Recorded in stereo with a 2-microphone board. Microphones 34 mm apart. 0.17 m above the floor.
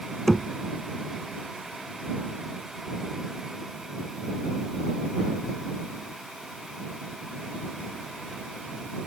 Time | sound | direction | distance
0.3 | knocking | 10° left (ahead or behind) | ?